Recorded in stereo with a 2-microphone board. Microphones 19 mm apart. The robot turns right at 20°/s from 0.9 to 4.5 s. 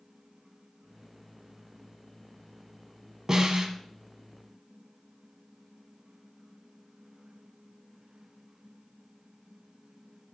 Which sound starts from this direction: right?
A snare drum, at 3.3 s.